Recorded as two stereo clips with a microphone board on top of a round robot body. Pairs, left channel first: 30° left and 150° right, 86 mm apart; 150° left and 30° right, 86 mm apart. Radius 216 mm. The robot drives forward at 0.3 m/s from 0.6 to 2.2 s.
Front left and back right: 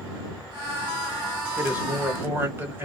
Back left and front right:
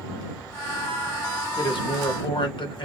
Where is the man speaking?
140° left, 1.3 m; by 2.9 s 145° left, 1.4 m.